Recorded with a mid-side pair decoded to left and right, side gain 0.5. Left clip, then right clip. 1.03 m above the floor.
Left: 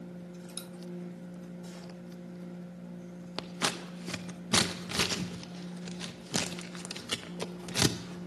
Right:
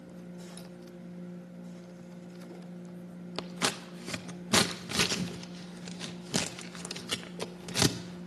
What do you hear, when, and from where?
3.4 s scissors: 15° right, 0.6 m